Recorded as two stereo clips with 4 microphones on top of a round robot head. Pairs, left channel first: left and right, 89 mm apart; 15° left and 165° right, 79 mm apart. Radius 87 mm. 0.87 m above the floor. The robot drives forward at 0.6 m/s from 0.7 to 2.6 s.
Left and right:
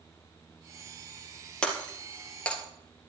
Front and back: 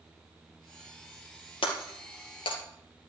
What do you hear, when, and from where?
1.6 s breaking glass: 10° left, 2.5 m; by 2.6 s 15° left, 2 m